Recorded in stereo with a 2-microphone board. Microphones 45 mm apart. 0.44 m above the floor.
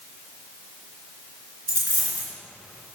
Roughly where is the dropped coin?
Right.